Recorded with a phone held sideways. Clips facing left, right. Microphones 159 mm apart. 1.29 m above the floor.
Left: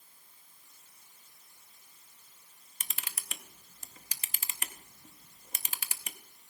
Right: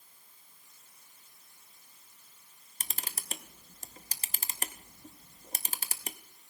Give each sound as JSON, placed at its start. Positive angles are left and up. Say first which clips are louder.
{"t": 2.8, "sound": "a camera shutter", "louder": "right 3 dB", "side_deg": -40, "distance_m": 0.8}